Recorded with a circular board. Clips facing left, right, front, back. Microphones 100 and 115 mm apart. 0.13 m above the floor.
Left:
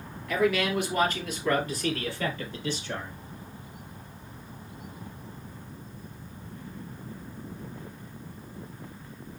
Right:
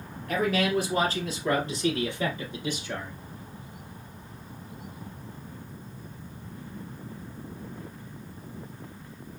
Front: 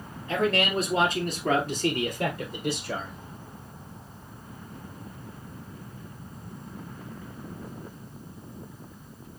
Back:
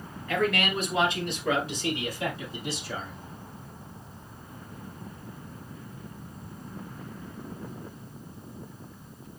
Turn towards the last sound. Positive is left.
turn(degrees=-10)